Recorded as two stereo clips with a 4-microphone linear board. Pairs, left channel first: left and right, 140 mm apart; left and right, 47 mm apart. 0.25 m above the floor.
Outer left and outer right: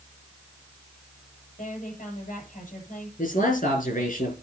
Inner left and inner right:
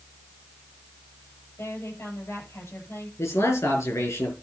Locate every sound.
1.6 s a woman speaking: 65° left (ahead or behind), 8 m
3.2 s a man speaking: 70° left (ahead or behind), 6.5 m